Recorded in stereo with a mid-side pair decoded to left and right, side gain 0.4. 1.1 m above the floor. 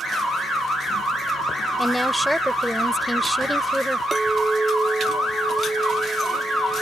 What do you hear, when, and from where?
1.8 s a woman speaking: 5° right
4.1 s a clink: 15° right